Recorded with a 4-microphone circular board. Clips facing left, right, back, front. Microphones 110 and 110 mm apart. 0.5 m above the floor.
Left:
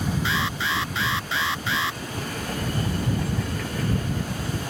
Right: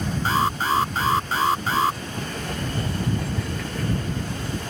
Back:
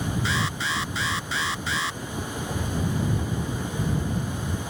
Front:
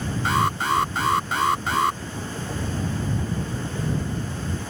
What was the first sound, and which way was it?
An alarm, 40° right.